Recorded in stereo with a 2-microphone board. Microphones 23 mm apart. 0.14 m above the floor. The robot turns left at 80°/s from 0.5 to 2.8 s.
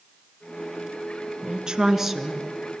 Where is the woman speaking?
115° right, 1.5 m; by 2.4 s 165° left, 1.5 m.